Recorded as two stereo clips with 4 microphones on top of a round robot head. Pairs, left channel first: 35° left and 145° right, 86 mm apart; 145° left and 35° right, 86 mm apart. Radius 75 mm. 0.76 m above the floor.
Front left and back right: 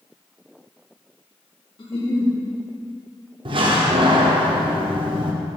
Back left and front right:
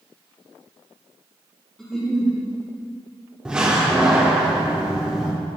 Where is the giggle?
55° left, 2.5 m.